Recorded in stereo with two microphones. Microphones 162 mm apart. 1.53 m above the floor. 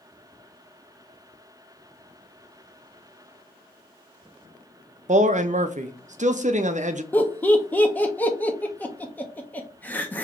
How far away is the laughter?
About 0.8 m.